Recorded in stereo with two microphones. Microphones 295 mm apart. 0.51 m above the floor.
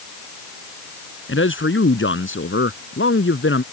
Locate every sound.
1.3 s a man speaking: 40° left (ahead or behind)